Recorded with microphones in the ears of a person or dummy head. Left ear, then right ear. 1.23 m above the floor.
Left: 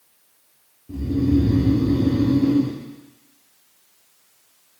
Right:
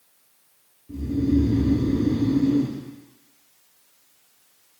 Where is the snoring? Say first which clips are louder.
Left 2 dB; 35° left (ahead or behind), 1.1 m.